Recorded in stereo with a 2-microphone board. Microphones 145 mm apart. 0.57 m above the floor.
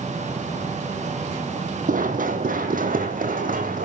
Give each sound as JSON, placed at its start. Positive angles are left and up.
{"t": 1.9, "sound": "running footsteps", "side_deg": -70, "distance_m": 1.6}